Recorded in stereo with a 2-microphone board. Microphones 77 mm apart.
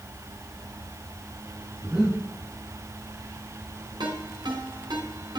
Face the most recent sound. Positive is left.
turn(degrees=-75)  # may be behind; listen again after turning